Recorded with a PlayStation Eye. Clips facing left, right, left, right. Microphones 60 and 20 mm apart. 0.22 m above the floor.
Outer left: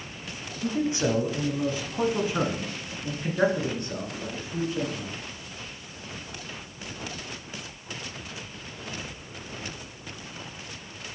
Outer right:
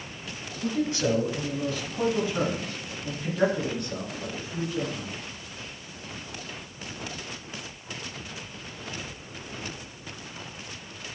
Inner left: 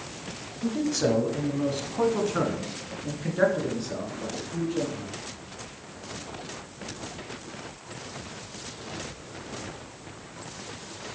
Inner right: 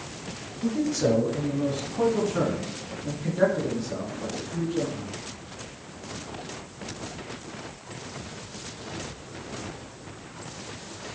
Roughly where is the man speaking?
Left.